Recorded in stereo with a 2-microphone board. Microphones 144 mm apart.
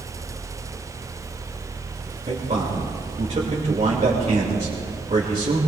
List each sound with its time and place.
2.3 s a man speaking: 50° right (ahead or behind), 3 m